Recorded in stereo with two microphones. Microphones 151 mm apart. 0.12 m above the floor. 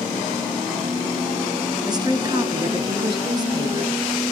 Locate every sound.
1.9 s a woman speaking: 25° right (ahead or behind), 1.5 m